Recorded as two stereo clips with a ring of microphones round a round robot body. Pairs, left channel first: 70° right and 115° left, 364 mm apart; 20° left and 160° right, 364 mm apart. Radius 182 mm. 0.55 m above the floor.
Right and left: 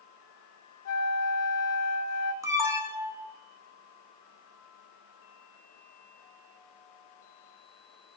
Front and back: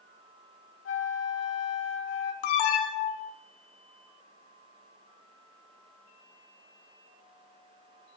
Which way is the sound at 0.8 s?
30° right.